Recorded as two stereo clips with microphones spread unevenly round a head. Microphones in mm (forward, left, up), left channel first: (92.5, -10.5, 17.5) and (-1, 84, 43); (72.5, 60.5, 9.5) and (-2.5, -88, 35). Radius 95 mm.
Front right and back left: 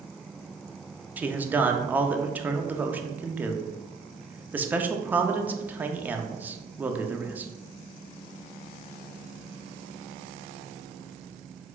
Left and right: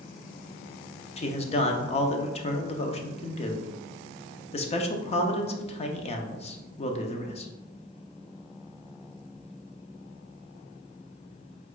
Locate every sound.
1.2 s a man speaking: 50° left, 0.6 m